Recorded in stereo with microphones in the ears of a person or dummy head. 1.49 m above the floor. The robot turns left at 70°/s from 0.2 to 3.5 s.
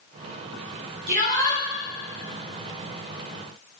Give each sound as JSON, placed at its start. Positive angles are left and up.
{"t": 1.1, "sound": "a shout", "azimuth_deg": -105, "distance_m": 3.0}